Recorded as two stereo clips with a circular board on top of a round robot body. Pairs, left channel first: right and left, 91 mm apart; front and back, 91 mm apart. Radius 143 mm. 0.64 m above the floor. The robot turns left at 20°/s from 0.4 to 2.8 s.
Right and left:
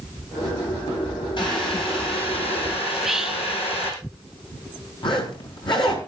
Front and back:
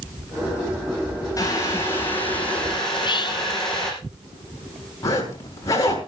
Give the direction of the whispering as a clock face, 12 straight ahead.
12 o'clock.